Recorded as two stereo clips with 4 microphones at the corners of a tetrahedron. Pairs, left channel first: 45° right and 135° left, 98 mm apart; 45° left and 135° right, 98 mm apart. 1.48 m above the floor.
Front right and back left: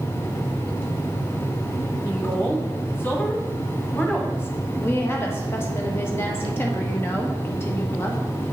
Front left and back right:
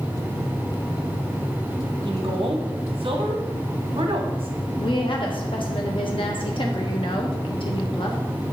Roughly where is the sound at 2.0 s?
Behind right.